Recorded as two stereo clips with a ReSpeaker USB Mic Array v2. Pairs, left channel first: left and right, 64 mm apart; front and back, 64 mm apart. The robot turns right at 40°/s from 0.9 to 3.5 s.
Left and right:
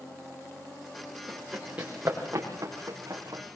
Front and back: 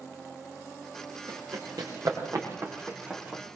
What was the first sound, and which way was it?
Running footsteps, straight behind.